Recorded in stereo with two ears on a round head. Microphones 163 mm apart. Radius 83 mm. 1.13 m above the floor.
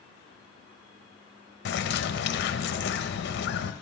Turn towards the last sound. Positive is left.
turn(degrees=70)  # may be behind; listen again after turning